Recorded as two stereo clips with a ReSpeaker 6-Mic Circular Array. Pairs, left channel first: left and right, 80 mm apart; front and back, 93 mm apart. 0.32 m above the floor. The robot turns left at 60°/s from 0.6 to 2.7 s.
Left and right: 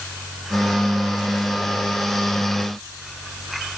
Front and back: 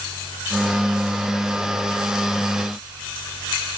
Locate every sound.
Only background noise.